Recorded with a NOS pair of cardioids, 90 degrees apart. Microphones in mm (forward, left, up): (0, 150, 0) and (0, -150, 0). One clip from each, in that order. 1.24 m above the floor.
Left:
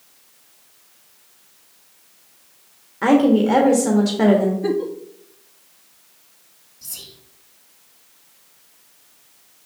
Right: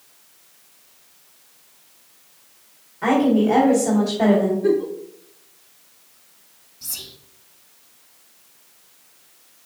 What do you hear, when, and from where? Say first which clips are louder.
3.0 s a woman speaking: left 2 dB; 65° left, 1.8 m
4.6 s a giggle: right 2 dB; 50° left, 1.2 m
6.8 s whispering: right 3 dB; 5° right, 1.6 m